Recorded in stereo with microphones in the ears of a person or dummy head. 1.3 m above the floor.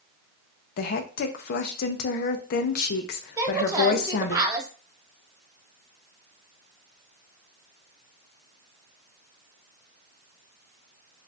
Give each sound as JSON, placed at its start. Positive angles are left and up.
{"t": 0.8, "sound": "a woman speaking", "side_deg": 50, "distance_m": 0.5}
{"t": 3.4, "sound": "a woman speaking", "side_deg": -20, "distance_m": 0.9}